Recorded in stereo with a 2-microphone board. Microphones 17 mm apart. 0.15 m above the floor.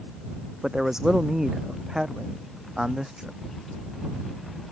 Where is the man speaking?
30° right (ahead or behind).